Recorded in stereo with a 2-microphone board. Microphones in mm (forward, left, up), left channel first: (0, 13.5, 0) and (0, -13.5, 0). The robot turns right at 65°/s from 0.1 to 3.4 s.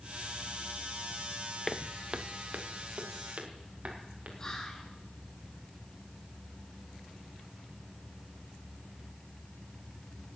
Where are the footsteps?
15° left (ahead or behind), 0.5 m; by 4.3 s 50° right (ahead or behind), 3.5 m.